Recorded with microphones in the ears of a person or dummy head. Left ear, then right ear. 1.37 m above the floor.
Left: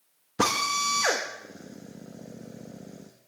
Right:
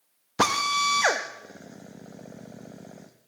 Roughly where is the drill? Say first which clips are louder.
Right 2 dB; centre.